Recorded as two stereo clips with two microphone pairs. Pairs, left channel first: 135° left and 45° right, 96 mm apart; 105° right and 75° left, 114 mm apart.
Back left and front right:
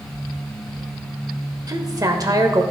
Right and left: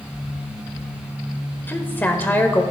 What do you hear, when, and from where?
1.7 s a woman speaking: 40° right, 1.0 m